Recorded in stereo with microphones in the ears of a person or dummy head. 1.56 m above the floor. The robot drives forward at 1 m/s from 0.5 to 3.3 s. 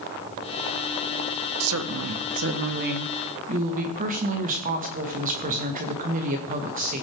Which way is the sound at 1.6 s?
80° right.